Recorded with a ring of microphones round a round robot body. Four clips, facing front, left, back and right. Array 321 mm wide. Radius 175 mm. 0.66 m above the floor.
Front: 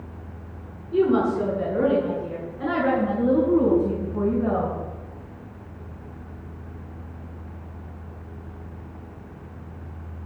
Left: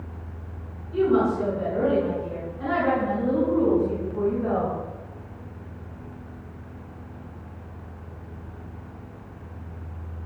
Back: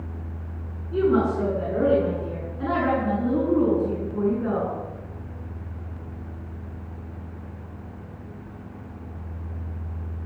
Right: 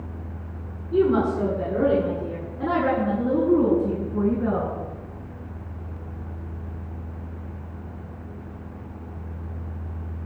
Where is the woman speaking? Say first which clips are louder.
Right 1 dB, front 1 dB; 110° right, 8 m; by 4.7 s 100° right, 9 m.